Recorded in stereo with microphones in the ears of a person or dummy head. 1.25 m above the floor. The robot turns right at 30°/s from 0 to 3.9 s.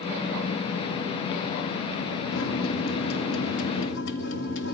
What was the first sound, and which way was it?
A microwave, 70° left.